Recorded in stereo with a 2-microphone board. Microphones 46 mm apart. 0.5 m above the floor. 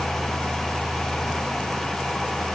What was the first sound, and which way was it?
Only background noise.